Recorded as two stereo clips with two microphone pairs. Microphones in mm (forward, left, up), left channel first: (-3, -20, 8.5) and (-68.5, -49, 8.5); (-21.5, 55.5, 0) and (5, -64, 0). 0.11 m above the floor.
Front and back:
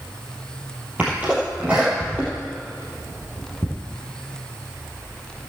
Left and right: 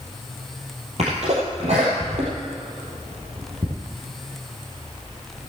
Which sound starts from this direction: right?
A sneeze, at 1.0 s.